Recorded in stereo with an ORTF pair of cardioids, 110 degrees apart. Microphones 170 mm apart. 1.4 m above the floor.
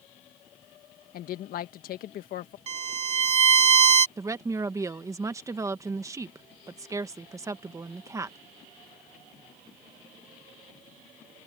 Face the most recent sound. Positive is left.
turn(degrees=-20)